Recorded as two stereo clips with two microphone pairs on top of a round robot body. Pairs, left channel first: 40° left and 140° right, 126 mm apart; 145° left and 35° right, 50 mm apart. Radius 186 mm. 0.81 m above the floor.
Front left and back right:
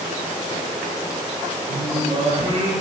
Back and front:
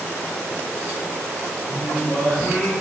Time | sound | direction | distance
1.7 | singing | straight behind | 2.5 m